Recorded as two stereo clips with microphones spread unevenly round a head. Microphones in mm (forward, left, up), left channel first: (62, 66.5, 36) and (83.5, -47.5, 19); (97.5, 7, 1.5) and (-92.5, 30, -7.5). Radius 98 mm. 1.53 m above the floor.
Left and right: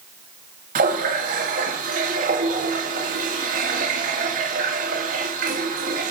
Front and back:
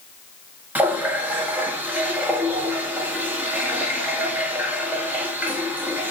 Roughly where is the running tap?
Right.